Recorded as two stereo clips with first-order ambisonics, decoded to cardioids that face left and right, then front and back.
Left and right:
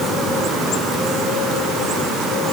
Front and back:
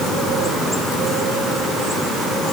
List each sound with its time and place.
Only background noise.